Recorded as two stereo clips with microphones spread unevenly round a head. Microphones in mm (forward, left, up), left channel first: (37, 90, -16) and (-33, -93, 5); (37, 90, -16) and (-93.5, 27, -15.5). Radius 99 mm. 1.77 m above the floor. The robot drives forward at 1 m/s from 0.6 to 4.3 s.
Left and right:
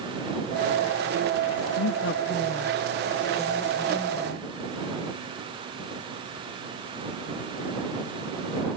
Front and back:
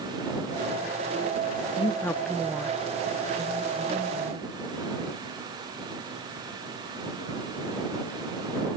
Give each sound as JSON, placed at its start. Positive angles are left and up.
{"t": 1.8, "sound": "a woman speaking", "azimuth_deg": 75, "distance_m": 0.7}